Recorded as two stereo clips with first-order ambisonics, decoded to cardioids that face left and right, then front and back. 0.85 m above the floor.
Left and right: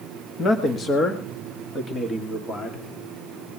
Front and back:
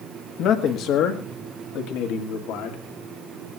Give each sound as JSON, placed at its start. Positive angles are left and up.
{"t": 0.4, "sound": "a man speaking", "azimuth_deg": 30, "distance_m": 1.4}